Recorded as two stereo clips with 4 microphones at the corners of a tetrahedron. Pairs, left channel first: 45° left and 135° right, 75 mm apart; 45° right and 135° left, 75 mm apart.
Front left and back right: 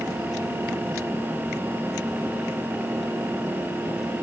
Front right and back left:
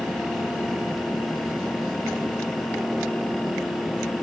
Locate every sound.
Only background noise.